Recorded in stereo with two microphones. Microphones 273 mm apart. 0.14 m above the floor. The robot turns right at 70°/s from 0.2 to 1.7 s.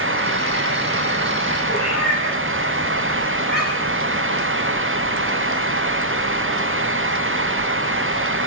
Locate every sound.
1.7 s a cat meowing: 80° right, 8 m